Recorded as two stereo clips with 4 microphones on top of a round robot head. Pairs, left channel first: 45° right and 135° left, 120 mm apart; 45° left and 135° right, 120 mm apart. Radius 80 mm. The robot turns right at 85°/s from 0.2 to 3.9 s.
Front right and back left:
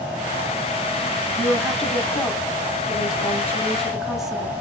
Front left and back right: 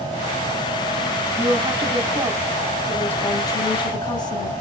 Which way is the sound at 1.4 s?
165° right.